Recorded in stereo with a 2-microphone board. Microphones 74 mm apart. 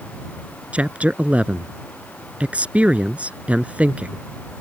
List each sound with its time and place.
0.7 s a man speaking: 20° right (ahead or behind)